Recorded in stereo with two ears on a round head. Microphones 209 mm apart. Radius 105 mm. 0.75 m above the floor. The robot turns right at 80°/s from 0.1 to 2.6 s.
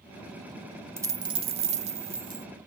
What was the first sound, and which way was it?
A dropped coin, 10° right (ahead or behind).